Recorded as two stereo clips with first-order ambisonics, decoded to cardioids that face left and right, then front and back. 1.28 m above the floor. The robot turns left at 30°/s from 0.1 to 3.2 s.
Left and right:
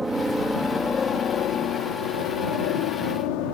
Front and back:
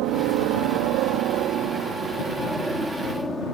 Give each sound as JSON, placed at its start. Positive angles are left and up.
{"t": 0.0, "sound": "a helicopter", "azimuth_deg": -170}